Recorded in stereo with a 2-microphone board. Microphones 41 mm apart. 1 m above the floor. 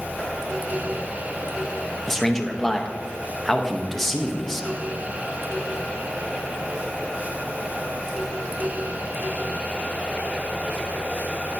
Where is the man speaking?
5° left (ahead or behind), 0.6 m.